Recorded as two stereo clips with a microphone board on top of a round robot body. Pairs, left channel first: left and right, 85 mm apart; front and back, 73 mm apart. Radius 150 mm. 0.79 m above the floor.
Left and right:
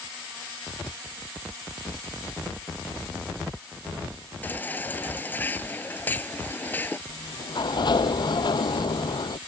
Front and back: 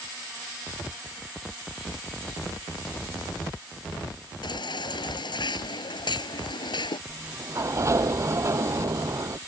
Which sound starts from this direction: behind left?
A sliding door, at 7.1 s.